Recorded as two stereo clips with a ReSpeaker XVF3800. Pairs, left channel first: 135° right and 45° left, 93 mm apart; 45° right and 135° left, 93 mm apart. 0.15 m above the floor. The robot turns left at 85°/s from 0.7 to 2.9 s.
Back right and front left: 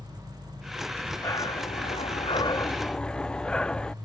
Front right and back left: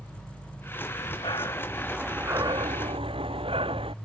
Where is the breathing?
45° right; by 3.9 s 145° left.